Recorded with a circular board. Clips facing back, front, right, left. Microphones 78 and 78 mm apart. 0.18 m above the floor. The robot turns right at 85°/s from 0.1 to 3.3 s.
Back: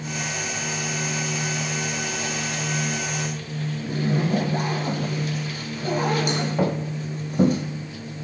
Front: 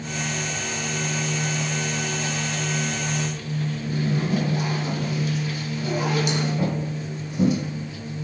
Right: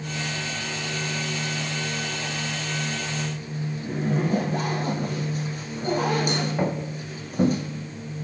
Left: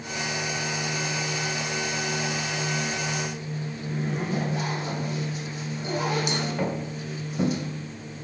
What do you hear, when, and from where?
3.8 s a zipper: 135° right, 2.5 m
6.6 s footsteps: 165° right, 1.9 m